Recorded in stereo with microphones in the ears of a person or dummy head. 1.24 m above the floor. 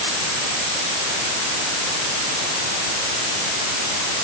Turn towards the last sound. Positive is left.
No sound to turn to.